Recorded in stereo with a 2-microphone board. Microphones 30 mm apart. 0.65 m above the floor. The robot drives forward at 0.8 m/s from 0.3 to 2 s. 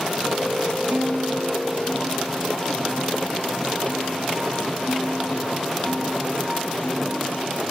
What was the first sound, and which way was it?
A guitar, 70° right (ahead or behind).